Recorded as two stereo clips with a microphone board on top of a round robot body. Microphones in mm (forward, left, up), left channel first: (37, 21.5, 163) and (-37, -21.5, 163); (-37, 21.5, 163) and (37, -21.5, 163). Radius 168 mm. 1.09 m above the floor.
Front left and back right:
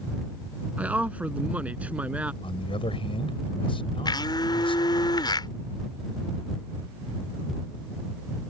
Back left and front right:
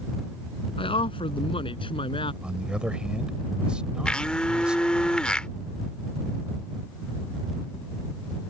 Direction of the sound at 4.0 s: 70° left.